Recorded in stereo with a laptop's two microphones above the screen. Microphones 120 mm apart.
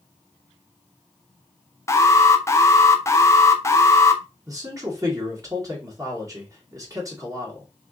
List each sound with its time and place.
1.9 s an alarm: 20° left (ahead or behind), 0.5 m
4.5 s a man speaking: 25° right (ahead or behind), 1.8 m